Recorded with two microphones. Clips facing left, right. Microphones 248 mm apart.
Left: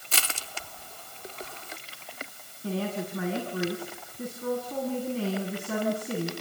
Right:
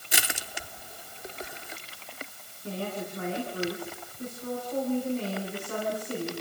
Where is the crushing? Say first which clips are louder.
Right 2 dB; 15° right (ahead or behind), 1.0 m.